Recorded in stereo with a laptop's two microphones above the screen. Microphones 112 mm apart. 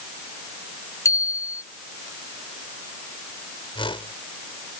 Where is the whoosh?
50° left (ahead or behind).